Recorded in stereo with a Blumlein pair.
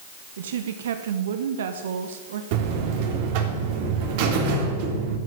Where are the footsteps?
No footsteps in this recording.